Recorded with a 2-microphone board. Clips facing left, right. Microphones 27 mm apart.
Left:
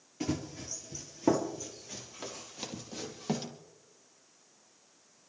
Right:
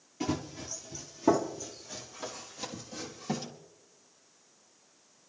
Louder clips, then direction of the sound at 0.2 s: Right 1 dB; 5° right (ahead or behind).